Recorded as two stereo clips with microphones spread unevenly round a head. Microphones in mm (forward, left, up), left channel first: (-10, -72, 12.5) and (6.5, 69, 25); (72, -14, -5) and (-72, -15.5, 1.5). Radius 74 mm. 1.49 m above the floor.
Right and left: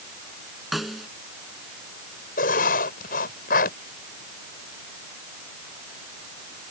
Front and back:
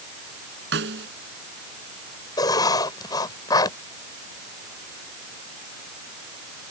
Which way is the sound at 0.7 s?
170° left.